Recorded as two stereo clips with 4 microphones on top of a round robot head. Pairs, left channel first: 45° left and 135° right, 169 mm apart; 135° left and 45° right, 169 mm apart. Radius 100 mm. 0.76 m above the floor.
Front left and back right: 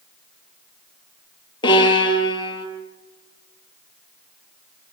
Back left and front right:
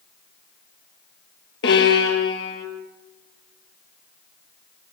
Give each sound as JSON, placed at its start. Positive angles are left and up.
{"t": 1.6, "sound": "a violin", "azimuth_deg": 110, "distance_m": 3.5}